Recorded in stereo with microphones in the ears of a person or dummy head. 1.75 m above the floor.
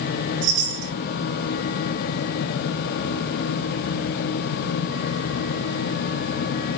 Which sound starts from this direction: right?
A chime, at 0.4 s.